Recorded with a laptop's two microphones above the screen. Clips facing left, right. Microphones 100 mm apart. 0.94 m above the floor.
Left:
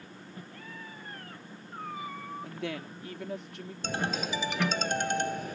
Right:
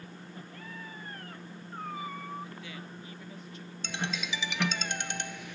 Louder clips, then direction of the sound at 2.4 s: Left 7 dB; 70° left (ahead or behind).